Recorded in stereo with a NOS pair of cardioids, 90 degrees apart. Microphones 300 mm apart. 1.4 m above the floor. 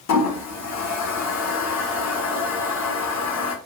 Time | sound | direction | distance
0.1 | a toilet flushing | 65° left | 0.8 m